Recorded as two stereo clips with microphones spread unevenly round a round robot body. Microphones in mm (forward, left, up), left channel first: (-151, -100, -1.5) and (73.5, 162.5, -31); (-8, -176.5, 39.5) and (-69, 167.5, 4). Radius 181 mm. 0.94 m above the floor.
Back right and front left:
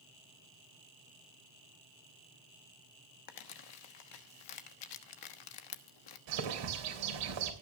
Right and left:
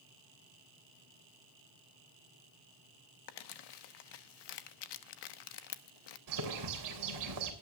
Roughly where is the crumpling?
Right.